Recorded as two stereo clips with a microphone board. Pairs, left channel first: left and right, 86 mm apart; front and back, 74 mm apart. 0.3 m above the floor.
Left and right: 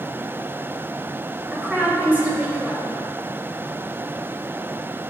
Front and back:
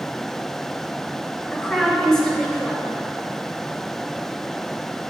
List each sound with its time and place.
1.5 s a woman speaking: 65° right, 1.4 m